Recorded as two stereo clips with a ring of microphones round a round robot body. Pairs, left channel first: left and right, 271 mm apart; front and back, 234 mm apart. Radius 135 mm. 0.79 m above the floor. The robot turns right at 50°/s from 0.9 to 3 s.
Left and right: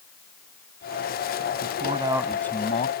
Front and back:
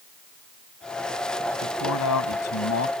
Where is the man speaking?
35° right; by 2.9 s 30° left.